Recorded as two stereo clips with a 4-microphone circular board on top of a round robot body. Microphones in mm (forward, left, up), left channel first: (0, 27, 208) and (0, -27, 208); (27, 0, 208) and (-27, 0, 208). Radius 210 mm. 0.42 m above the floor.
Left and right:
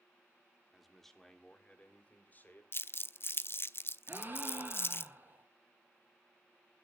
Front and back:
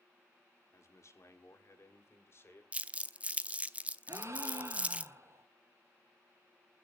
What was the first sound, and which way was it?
A man speaking, 5° right.